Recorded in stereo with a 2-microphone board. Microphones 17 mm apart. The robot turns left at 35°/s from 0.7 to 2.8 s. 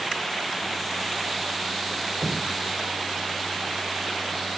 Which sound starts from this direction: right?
Dripping, at 2.2 s.